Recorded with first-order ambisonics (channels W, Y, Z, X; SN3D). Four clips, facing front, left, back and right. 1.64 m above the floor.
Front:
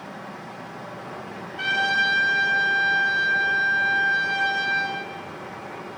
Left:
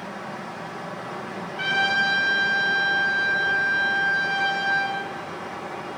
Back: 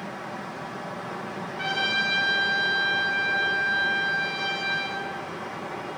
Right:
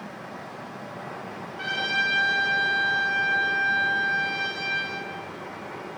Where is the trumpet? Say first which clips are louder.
Left 4 dB, front 4 dB; 35° left, 4.5 m.